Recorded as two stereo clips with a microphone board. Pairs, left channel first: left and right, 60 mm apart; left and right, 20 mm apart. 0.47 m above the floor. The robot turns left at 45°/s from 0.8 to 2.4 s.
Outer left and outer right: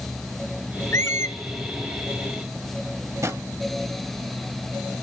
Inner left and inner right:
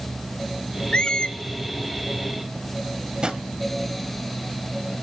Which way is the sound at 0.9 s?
50° left (ahead or behind).